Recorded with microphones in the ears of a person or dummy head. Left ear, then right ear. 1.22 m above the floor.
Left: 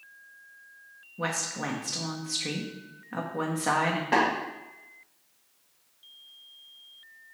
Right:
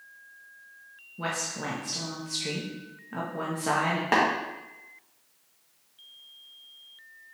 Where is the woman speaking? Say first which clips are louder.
Left 1 dB; 20° left (ahead or behind), 0.5 m.